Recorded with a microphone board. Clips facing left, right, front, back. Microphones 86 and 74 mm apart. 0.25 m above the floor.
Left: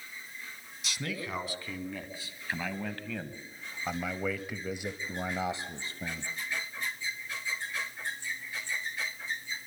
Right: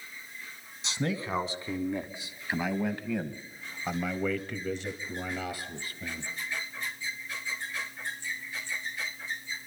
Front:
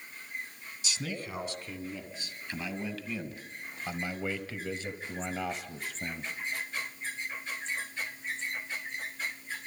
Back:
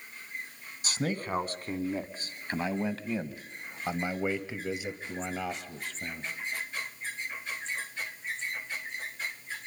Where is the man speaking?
150° right, 2.5 m; by 6.3 s 70° left, 1.5 m.